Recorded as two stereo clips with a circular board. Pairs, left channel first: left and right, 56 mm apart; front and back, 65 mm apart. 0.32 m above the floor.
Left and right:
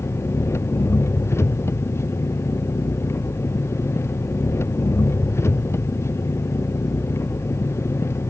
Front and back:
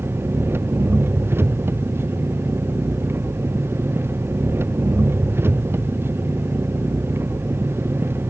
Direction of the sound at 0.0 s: 125° left.